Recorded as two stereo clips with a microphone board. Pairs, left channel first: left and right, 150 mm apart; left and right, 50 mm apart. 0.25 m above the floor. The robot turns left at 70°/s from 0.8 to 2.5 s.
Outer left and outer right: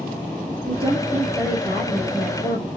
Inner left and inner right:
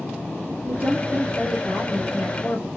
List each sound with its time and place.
0.7 s a woman speaking: 110° right, 1.1 m; by 2.7 s 135° left, 1.1 m